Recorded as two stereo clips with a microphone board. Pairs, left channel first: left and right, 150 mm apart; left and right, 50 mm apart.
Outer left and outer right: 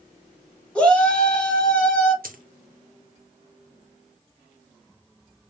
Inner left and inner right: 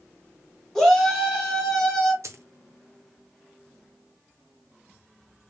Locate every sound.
0.8 s a shout: 5° left (ahead or behind), 1.4 m
2.2 s a dropped coin: 70° right (ahead or behind), 0.6 m